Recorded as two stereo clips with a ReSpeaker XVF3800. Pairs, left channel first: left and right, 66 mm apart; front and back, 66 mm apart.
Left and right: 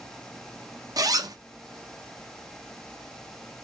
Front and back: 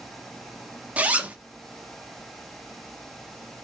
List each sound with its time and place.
1.0 s a zipper: 110° right, 0.6 m